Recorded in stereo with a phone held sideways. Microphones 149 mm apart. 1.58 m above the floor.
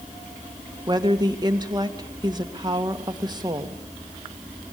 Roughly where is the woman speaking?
Right.